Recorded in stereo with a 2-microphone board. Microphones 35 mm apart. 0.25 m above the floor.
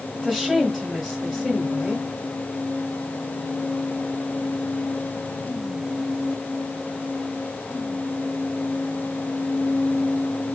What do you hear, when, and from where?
0.1 s a woman speaking: 5° left (ahead or behind), 1.4 m